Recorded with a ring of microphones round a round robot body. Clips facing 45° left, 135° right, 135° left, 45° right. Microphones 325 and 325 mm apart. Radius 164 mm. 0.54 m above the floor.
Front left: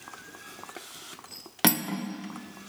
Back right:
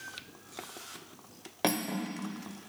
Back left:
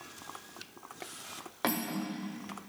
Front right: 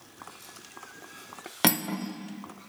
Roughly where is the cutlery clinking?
Ahead.